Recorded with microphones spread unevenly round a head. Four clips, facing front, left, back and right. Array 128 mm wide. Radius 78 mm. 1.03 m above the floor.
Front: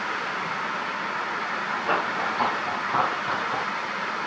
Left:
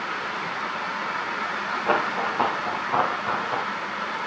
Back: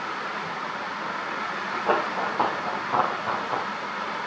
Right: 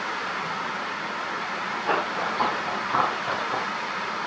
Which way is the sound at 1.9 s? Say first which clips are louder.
Left 2 dB, back 2 dB; 175° left.